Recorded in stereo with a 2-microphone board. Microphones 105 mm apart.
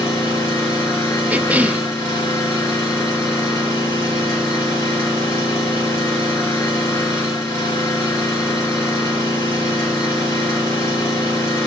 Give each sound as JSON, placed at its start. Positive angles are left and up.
{"t": 0.0, "sound": "an engine running", "side_deg": 30, "distance_m": 6.5}
{"t": 1.3, "sound": "a cough", "side_deg": -15, "distance_m": 0.5}